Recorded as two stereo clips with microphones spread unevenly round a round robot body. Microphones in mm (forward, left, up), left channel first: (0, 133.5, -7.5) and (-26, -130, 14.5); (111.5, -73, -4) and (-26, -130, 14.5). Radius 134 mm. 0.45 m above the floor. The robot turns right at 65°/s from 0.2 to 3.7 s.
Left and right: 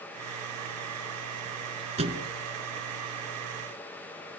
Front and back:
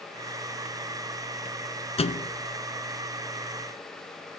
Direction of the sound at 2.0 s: 30° right.